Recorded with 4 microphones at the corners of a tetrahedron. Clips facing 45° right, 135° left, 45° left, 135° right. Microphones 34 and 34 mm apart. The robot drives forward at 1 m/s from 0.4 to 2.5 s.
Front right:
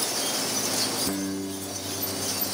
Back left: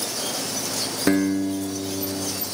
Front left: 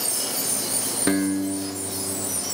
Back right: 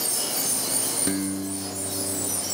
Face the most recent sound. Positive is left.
turn(degrees=140)